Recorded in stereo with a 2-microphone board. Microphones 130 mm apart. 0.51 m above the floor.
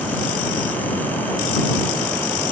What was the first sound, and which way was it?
Only background noise.